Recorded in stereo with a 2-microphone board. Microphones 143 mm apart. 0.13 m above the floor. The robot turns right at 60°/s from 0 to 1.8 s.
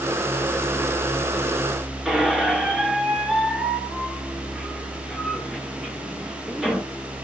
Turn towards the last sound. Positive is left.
turn(degrees=-5)  # may be behind; listen again after turning